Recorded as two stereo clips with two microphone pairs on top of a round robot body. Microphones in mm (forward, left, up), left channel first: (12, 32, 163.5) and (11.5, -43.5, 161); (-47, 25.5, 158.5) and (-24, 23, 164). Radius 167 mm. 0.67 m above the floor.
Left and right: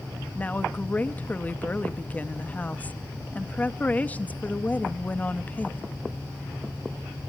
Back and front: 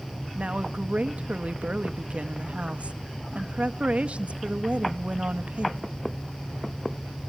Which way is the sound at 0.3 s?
25° left.